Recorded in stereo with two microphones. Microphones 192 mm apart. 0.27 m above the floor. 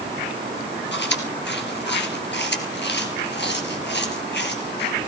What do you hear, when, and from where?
0.9 s chewing: 65° left (ahead or behind), 2.5 m